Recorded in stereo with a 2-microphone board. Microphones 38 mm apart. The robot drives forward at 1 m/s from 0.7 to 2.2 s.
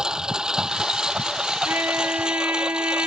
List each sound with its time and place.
0.0 s a lawn mower: 20° right (ahead or behind); by 3.1 s 25° right (ahead or behind)
1.6 s a trumpet: 70° right (ahead or behind)